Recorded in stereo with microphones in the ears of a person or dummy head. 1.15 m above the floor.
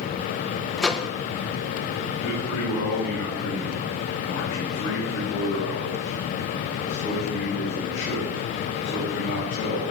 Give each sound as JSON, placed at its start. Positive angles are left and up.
{"t": 0.8, "sound": "a microwave", "side_deg": 5, "distance_m": 0.7}
{"t": 2.2, "sound": "a man speaking", "side_deg": 65, "distance_m": 6.5}